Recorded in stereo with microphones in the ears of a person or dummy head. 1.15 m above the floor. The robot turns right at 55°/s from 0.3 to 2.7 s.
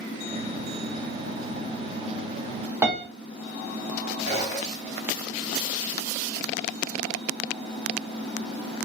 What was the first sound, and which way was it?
A piano, 10° right (ahead or behind).